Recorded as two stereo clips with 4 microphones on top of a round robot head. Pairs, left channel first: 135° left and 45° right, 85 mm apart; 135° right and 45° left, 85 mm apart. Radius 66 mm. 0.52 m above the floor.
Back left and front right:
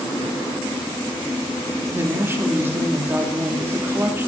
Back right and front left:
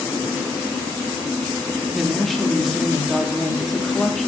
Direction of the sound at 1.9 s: 50° right.